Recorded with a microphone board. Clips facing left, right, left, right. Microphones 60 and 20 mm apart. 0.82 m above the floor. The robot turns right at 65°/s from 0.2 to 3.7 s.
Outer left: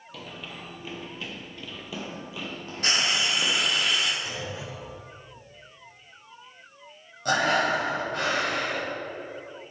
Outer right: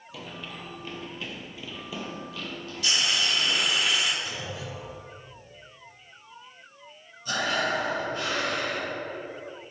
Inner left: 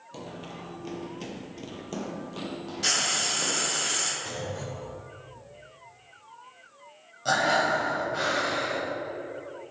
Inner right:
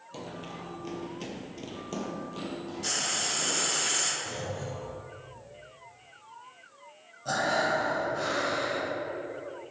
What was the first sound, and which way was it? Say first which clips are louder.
Running footsteps: outer right 1 dB, even; 5° right (ahead or behind).